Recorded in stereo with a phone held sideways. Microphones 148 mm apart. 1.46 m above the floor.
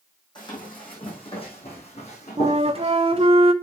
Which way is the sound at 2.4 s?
40° right (ahead or behind).